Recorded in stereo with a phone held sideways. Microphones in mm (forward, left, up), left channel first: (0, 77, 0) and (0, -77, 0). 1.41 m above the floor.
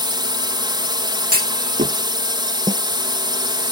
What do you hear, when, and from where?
0.0 s a drone: 30° right (ahead or behind)
1.3 s a clunk: 80° right
2.7 s a snare drum: 25° right (ahead or behind)